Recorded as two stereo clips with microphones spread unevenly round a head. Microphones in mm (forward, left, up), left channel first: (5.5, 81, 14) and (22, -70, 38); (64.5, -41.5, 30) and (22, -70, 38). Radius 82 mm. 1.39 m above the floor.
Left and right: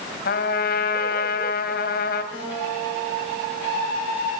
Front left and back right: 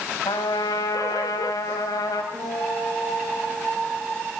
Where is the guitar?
155° left, 10 m.